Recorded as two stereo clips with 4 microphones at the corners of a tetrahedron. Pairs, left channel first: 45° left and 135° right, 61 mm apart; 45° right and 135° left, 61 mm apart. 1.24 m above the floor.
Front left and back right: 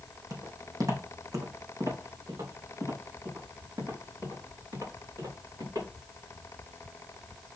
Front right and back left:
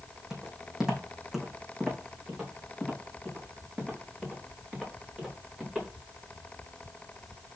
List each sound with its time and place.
0.3 s footsteps: 145° right, 3 m